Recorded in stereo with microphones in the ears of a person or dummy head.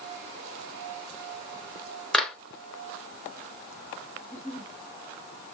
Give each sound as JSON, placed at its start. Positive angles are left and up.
{"t": 2.1, "sound": "a clap", "side_deg": 10, "distance_m": 1.1}
{"t": 4.2, "sound": "a giggle", "side_deg": -25, "distance_m": 1.7}